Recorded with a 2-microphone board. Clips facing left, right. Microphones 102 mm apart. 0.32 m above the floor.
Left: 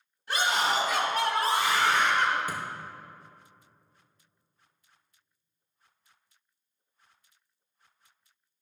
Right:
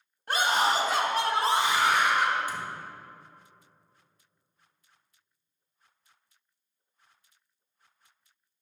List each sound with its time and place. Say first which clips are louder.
0.3 s a scream: right 2 dB; 55° right (ahead or behind), 2 m; by 2.4 s 5° right (ahead or behind), 1.8 m
2.5 s a thud: left 1 dB; 55° left (ahead or behind), 2.0 m